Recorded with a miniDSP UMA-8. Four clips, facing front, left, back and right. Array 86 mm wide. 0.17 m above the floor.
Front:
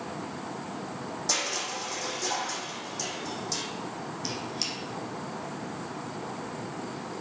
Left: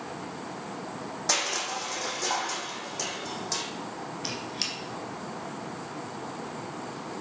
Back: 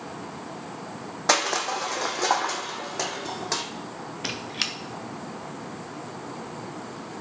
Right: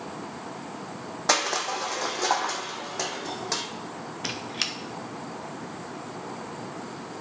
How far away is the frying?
I don't hear frying.